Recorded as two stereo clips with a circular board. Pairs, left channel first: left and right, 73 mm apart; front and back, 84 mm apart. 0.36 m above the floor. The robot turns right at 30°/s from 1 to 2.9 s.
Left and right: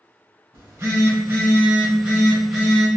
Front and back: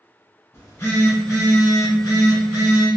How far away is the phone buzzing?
About 1.3 m.